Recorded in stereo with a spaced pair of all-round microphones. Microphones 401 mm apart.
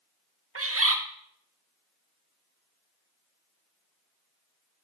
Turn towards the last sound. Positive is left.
turn(degrees=-35)  # may be behind; listen again after turning